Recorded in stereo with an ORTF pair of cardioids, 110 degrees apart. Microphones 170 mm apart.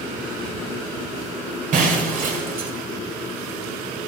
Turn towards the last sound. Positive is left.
turn(degrees=-55)